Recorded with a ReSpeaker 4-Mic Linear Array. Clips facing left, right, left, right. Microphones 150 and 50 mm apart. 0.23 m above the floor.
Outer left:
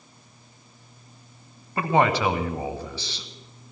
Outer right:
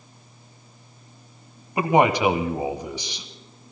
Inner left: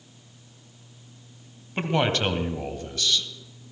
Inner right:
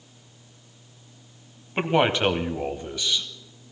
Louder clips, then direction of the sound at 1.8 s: Outer right 3 dB, inner right 3 dB; 15° right (ahead or behind).